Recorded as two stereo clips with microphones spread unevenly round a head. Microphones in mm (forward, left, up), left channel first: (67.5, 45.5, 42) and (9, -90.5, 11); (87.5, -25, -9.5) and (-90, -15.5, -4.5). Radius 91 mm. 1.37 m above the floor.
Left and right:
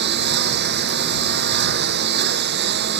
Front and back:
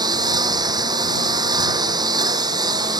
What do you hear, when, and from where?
0.0 s a lawn mower: 115° right